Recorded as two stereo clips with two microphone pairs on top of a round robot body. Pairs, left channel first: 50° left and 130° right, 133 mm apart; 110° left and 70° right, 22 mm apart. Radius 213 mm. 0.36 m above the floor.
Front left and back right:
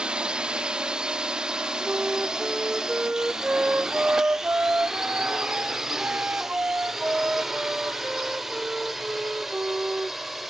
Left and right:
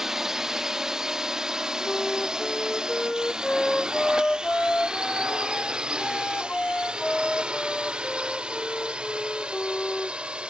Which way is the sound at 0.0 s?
75° right.